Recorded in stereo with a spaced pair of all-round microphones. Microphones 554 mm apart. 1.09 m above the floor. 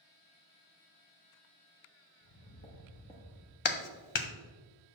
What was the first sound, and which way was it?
Footsteps, 40° left (ahead or behind).